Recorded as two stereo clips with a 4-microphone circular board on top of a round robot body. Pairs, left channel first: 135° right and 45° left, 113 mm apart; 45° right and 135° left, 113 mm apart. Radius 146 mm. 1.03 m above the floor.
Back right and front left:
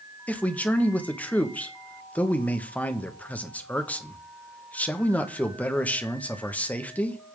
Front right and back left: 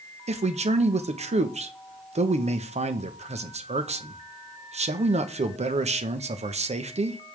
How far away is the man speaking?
About 1.3 m.